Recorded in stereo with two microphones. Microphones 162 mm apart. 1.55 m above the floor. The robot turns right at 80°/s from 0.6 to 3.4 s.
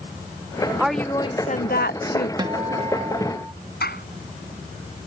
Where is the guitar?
25° right (ahead or behind); by 3.5 s 15° right (ahead or behind).